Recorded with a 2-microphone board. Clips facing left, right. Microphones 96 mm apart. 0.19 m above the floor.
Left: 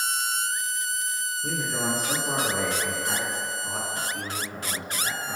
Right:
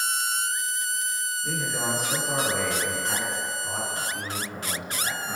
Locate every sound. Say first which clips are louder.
1.4 s a man speaking: left 1 dB; 50° left (ahead or behind), 1.8 m; by 5.4 s 20° right (ahead or behind), 2 m